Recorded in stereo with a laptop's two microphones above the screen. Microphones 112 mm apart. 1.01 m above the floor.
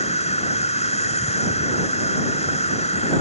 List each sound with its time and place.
0.0 s an insect: 80° left